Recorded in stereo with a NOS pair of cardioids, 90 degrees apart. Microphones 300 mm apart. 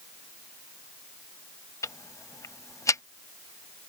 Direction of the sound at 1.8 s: 10° left.